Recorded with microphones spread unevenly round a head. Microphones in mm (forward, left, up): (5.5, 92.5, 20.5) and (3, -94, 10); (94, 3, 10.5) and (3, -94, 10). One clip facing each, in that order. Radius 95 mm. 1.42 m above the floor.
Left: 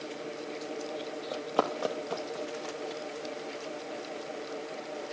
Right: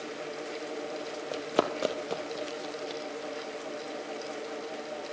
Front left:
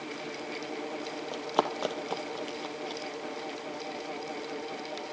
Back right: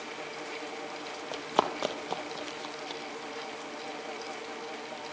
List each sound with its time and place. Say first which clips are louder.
1.3 s running footsteps: right 2 dB, back right 1 dB; 50° right, 1.4 m; by 3.0 s 35° right, 2.5 m